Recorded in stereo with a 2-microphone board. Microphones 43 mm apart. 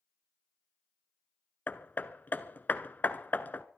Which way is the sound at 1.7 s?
45° left (ahead or behind).